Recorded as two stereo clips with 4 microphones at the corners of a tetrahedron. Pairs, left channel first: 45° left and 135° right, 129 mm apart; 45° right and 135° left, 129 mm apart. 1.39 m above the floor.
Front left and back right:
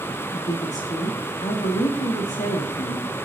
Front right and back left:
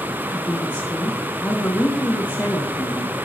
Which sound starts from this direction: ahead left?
A woman speaking, at 0.3 s.